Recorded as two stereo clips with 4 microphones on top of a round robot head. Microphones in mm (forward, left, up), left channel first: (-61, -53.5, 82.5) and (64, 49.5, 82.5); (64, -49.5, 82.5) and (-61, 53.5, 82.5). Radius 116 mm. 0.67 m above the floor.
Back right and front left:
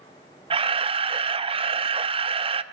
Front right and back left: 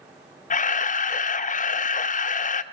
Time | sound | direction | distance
0.5 | a camera shutter | 10° right | 0.8 m